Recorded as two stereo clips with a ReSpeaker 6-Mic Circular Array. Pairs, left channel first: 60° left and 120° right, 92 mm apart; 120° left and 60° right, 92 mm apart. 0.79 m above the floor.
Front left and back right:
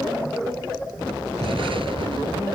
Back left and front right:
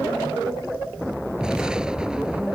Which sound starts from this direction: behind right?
An explosion, at 1.4 s.